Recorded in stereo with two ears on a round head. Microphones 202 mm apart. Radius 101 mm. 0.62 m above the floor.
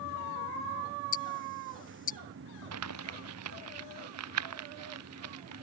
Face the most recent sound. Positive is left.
turn(degrees=-80)